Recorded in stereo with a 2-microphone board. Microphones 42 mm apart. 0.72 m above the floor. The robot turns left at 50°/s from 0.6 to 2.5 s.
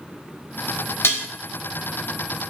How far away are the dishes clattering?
About 0.8 m.